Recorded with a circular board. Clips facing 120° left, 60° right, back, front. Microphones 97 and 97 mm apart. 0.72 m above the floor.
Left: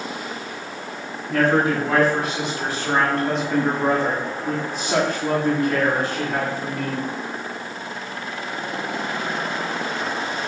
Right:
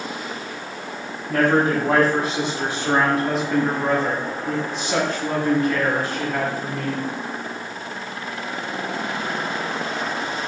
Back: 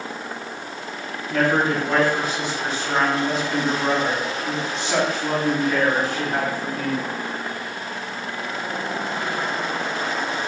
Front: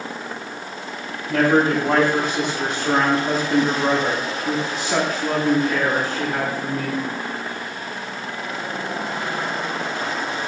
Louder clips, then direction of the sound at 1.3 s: Right 1 dB, front 3 dB; 25° right.